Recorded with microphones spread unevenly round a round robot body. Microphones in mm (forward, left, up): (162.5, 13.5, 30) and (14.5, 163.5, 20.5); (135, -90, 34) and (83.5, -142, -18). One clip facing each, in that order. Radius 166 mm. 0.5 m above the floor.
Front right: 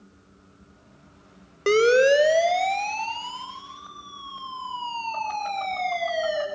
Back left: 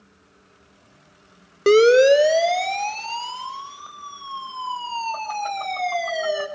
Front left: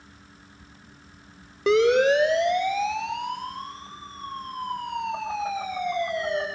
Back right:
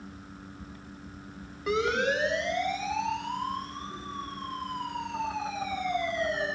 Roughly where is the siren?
Left.